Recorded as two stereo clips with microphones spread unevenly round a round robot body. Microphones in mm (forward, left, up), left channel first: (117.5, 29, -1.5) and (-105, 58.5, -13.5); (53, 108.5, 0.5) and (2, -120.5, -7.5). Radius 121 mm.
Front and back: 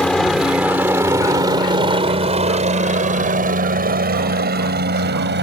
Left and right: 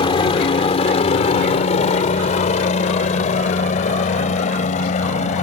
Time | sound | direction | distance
0.0 | a helicopter | 75° left | ?